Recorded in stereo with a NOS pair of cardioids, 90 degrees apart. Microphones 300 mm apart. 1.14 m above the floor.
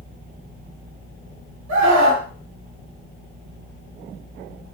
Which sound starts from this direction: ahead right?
A scream, at 1.7 s.